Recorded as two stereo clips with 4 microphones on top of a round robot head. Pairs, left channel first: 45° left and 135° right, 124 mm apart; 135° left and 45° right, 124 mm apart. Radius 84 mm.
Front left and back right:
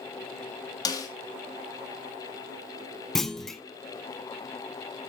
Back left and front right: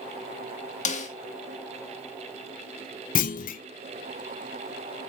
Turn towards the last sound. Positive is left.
turn(degrees=135)